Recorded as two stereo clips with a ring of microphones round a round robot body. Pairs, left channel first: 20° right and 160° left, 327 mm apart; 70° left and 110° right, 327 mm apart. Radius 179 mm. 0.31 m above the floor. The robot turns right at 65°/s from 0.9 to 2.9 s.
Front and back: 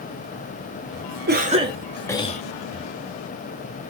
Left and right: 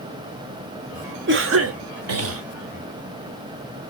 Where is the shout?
I don't hear a shout.